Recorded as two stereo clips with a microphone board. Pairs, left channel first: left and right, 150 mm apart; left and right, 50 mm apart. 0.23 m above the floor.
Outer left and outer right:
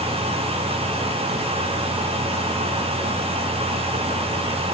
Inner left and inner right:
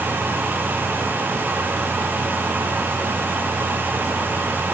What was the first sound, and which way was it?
Only background noise.